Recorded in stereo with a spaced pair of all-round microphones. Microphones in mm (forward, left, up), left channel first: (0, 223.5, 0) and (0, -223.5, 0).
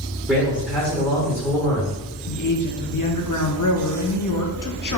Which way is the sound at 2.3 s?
45° left (ahead or behind).